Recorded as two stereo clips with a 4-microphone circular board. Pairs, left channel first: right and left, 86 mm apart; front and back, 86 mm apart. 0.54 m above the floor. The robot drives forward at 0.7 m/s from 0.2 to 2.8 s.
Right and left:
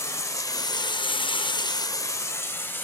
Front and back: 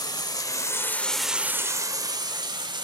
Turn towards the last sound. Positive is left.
turn(degrees=-155)